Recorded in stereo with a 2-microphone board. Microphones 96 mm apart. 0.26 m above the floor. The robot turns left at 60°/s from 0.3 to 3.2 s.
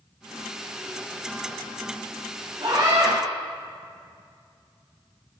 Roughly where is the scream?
Right.